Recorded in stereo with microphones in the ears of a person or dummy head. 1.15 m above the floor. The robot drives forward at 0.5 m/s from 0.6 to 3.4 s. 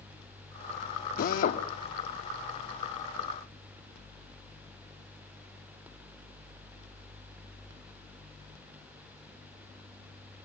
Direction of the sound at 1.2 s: 45° left (ahead or behind).